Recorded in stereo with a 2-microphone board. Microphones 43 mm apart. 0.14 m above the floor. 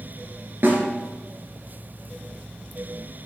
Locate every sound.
0.6 s a snare drum: 55° right (ahead or behind), 1.9 m